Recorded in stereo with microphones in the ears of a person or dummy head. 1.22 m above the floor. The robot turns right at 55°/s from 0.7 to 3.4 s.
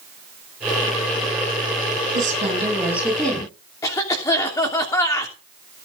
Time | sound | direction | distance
2.1 | a woman speaking | 50° right | 8.5 m
3.8 | a cough | 25° left (ahead or behind) | 3 m